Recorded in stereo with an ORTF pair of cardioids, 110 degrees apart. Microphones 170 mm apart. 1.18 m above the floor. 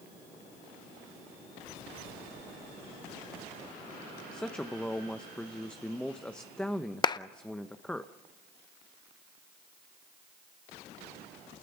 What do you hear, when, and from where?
4.3 s a man speaking: 5° left, 0.9 m
7.0 s a clap: 25° left, 0.6 m